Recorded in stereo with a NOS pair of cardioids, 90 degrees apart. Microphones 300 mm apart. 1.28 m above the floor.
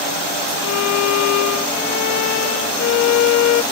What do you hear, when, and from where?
0.6 s a violin: 65° left, 0.5 m